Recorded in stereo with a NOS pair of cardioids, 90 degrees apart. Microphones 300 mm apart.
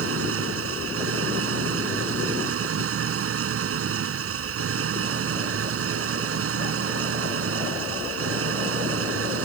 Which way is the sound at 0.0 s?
50° right.